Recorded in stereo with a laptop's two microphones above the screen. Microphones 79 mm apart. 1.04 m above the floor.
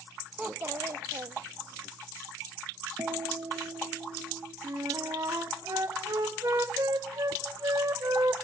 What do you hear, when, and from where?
0.4 s a child speaking: 15° right (ahead or behind), 0.8 m; by 1.9 s 85° right, 1.2 m
3.0 s a guitar: 55° right (ahead or behind), 1.4 m
4.6 s a flute: 55° right (ahead or behind), 1.4 m